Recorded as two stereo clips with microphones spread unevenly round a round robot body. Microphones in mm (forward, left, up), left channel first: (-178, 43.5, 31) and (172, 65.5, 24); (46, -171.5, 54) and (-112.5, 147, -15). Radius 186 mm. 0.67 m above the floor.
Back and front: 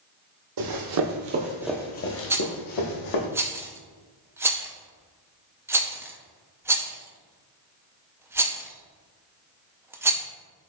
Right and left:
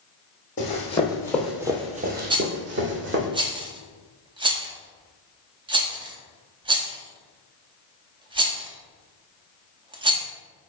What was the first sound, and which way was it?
Running footsteps, 5° right.